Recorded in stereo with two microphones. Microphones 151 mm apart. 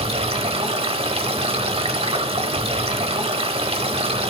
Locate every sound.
0.0 s running water: 40° right (ahead or behind), 1.0 m